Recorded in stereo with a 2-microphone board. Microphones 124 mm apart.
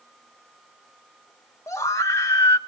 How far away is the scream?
About 1.0 m.